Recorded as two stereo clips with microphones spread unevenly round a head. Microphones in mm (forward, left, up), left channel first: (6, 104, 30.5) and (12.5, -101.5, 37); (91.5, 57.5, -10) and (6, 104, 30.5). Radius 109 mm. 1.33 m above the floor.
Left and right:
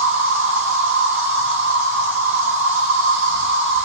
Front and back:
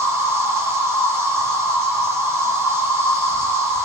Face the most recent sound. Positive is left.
turn(degrees=-115)